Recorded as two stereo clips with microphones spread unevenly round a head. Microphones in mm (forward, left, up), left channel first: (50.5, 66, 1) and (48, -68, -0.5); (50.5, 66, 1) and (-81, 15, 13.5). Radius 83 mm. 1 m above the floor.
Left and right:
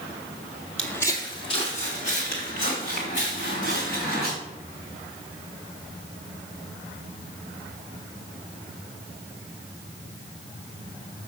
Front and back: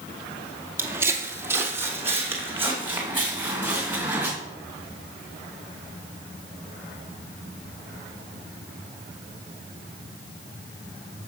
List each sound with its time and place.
0.8 s footsteps: 165° left, 1.0 m; by 4.3 s 125° left, 4.5 m